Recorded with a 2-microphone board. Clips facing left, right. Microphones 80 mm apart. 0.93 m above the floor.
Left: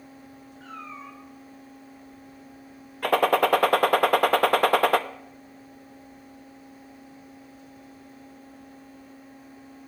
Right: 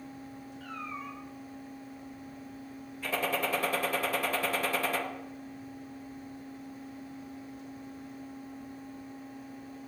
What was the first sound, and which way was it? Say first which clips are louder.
A cat meowing: even; 25° left (ahead or behind).